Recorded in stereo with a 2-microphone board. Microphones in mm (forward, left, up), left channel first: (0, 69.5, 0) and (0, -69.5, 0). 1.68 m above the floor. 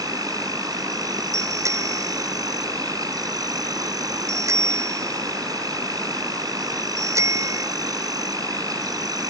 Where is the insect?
30° right (ahead or behind).